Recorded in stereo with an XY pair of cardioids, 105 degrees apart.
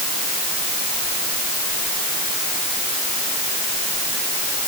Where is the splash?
I don't hear a splash.